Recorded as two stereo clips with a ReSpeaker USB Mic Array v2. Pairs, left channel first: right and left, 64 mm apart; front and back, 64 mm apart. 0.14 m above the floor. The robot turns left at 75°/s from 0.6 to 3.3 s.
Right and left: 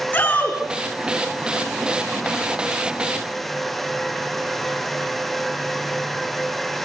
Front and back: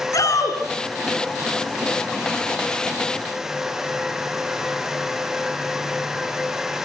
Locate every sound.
0.1 s a shout: 20° right, 7.5 m